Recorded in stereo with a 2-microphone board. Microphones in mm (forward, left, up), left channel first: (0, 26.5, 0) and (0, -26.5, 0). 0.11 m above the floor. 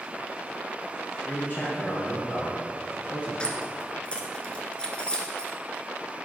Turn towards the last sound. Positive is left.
turn(degrees=20)  # may be behind; listen again after turning